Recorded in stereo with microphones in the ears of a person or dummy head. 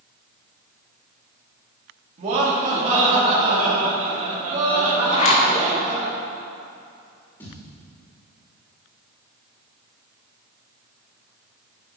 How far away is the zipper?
About 1.1 m.